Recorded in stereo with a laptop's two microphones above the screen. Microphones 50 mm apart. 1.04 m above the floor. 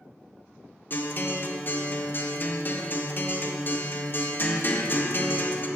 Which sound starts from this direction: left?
A guitar, at 0.9 s.